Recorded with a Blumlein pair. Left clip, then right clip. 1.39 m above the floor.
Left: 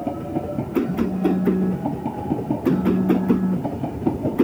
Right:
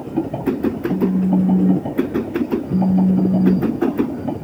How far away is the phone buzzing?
About 1.2 m.